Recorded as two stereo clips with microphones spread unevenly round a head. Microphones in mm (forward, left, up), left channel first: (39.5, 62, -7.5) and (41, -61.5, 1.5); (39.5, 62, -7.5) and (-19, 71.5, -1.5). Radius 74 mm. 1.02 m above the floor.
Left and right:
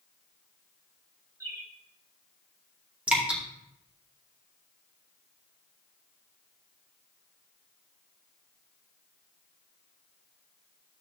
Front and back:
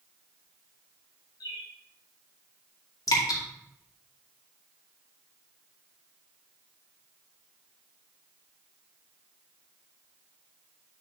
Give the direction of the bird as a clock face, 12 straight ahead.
1 o'clock.